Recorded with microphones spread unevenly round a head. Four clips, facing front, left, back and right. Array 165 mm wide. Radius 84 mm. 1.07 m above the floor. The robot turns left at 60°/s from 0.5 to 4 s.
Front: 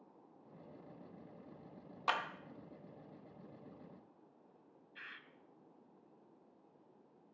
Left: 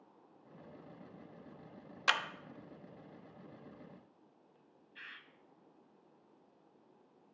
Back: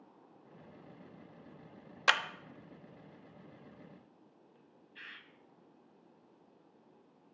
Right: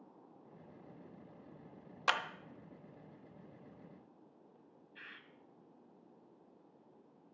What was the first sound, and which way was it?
A clap, 170° left.